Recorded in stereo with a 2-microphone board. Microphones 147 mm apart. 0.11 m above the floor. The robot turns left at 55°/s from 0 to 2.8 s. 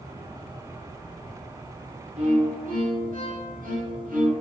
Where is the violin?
55° right, 2.5 m; by 4.3 s 90° right, 2.5 m.